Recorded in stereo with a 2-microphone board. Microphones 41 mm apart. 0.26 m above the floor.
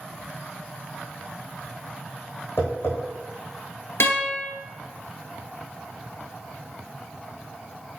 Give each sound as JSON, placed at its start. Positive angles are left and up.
{"t": 2.6, "sound": "tapping", "side_deg": 65, "distance_m": 3.5}
{"t": 4.0, "sound": "a guitar", "side_deg": 75, "distance_m": 2.0}